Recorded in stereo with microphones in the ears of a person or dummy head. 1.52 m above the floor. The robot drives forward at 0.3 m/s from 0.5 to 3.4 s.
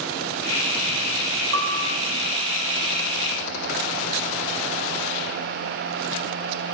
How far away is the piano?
About 5 m.